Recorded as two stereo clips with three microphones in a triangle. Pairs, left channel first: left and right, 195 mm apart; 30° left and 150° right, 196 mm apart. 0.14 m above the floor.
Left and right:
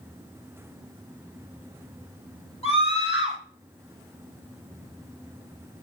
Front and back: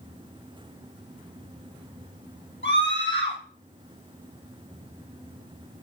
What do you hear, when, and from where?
2.6 s a scream: 30° left, 5 m